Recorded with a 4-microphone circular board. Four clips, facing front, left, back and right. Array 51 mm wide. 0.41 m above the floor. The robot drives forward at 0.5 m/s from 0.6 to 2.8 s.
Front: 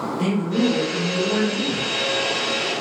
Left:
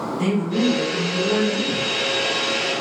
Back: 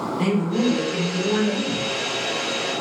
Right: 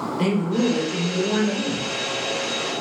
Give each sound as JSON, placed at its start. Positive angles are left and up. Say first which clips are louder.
{"t": 0.2, "sound": "a man speaking", "louder": "even, even", "azimuth_deg": -100, "distance_m": 1.3}